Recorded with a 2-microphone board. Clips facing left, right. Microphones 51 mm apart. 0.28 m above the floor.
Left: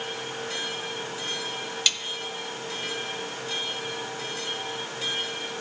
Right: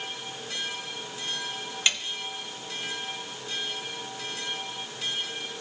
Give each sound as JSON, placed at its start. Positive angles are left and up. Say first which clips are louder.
{"t": 1.9, "sound": "a snare drum", "louder": "right 2 dB", "side_deg": -25, "distance_m": 0.8}